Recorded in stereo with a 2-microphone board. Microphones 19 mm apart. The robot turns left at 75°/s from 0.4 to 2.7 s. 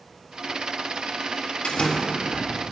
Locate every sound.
1.6 s a door slam: 70° left, 1.8 m; by 2.5 s 5° left, 1.8 m